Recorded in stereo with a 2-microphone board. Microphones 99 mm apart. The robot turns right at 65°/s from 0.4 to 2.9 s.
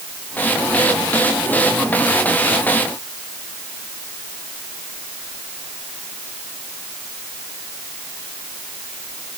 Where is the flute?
No flute in this recording.